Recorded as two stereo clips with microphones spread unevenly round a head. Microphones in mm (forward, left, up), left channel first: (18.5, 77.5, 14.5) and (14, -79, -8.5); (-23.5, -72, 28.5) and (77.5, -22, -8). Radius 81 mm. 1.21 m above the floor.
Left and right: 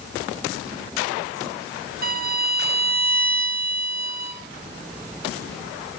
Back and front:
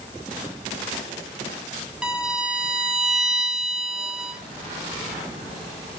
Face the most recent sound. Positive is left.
turn(degrees=-65)